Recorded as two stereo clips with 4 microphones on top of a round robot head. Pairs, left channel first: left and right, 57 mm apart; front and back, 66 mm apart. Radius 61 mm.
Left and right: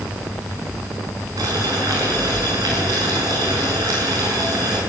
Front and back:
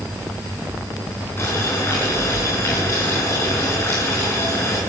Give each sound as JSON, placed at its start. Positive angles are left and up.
{"t": 1.4, "sound": "boiling", "azimuth_deg": -65, "distance_m": 7.0}